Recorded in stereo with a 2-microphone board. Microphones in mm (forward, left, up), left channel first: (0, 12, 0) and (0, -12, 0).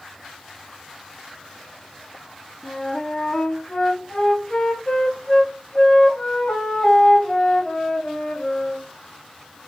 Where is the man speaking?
No man speaking in this recording.